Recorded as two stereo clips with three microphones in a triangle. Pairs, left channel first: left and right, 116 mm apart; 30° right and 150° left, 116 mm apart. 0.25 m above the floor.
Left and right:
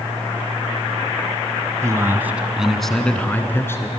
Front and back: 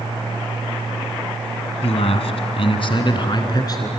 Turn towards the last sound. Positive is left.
turn(degrees=25)